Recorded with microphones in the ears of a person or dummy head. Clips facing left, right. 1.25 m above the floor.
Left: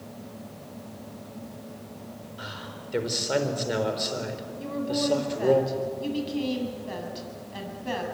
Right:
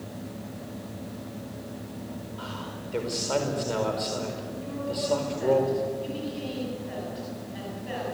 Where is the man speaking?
20° left (ahead or behind), 4.5 m.